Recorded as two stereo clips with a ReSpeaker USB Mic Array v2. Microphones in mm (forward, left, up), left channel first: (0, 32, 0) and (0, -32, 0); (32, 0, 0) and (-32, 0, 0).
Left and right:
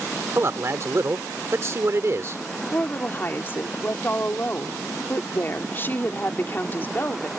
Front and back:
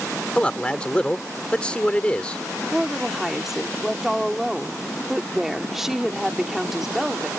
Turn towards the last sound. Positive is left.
turn(degrees=100)